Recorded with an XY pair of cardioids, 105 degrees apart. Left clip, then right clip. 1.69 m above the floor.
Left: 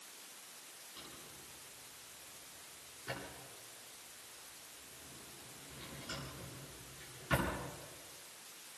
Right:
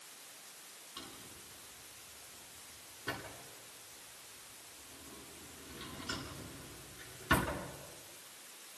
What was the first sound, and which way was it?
A drawer, 50° right.